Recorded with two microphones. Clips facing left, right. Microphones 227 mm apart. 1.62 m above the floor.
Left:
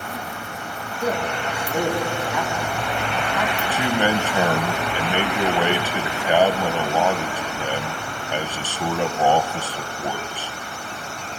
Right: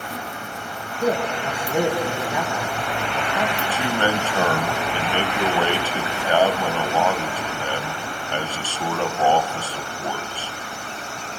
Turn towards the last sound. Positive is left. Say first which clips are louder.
# left 1 dB
turn(degrees=15)  # may be behind; listen again after turning